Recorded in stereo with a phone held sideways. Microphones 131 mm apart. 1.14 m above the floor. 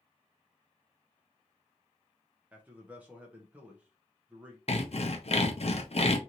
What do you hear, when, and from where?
2.5 s a man speaking: 10° right (ahead or behind), 0.6 m
4.7 s sawing: 55° left (ahead or behind), 0.5 m